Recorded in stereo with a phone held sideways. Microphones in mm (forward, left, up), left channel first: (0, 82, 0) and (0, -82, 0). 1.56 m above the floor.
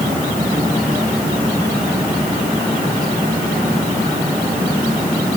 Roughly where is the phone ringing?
I don't hear a phone ringing.